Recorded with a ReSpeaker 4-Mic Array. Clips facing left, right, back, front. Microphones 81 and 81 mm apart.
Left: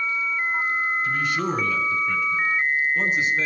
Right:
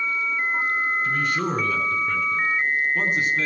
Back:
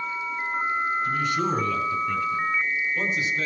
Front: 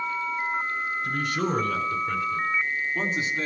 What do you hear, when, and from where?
1.0 s a man speaking: 40° right, 4.5 m; by 3.5 s 60° right, 3 m